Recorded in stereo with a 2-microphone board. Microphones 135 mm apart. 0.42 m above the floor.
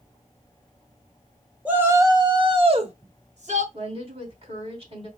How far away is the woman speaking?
About 3 m.